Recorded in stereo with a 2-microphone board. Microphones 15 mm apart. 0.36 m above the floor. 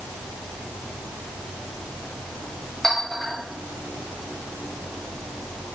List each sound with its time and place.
2.8 s a clink: 40° left (ahead or behind), 1.4 m